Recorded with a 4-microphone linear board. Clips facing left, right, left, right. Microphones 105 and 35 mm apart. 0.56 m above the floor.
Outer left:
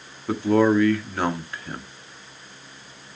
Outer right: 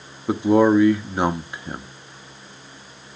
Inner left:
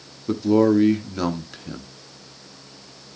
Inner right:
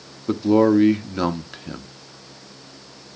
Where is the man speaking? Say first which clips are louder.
Outer right 3 dB, inner right 1 dB; 20° right (ahead or behind), 0.7 m.